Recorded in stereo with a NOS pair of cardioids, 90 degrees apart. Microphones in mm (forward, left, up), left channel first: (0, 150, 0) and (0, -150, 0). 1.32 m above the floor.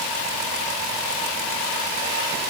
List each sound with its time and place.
Only background noise.